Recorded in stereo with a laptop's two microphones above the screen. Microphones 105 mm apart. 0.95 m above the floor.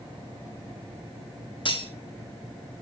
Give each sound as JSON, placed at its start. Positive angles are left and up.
{"t": 1.6, "sound": "cutlery clinking", "side_deg": 50, "distance_m": 1.3}